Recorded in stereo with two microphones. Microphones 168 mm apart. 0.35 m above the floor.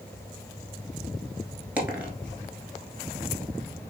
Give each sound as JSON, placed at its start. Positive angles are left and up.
{"t": 1.8, "sound": "a dropped coin", "side_deg": -10, "distance_m": 1.1}